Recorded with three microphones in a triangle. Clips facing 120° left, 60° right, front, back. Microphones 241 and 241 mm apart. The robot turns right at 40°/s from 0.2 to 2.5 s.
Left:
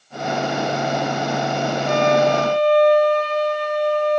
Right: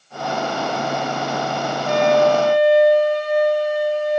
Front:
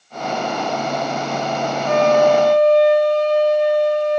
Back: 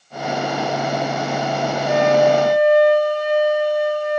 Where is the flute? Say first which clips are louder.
Right 2 dB, front 1 dB; 150° right, 0.6 m; by 4.2 s 120° right, 0.6 m.